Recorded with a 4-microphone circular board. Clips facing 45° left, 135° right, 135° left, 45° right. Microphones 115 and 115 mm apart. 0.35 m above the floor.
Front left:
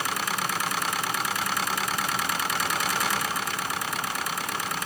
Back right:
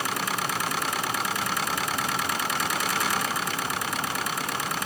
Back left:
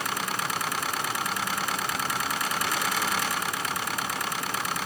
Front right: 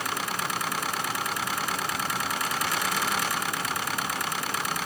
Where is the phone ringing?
No phone ringing in this recording.